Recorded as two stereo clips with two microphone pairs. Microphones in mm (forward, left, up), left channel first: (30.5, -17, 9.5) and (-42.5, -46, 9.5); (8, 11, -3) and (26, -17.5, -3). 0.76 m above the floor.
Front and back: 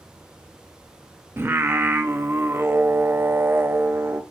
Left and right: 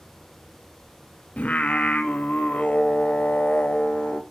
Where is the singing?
150° left, 0.7 m.